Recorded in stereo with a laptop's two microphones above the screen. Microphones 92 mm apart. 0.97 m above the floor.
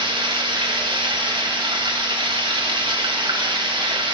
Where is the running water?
70° right (ahead or behind), 1.5 m.